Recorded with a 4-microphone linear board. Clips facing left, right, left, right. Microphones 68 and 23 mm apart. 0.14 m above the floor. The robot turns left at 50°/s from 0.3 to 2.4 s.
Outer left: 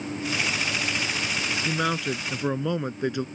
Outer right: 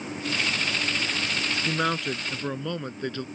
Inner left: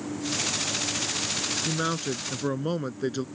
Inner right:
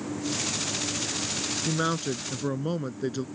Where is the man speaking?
165° right; by 3.2 s 155° left.